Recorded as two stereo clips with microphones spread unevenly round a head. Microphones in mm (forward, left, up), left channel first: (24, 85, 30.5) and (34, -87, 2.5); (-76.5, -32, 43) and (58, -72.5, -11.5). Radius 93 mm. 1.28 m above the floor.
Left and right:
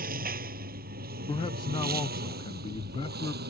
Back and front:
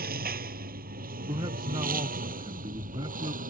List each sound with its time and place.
0.0 s a lawn mower: 45° right; by 3.5 s 50° right
1.3 s a man speaking: 25° left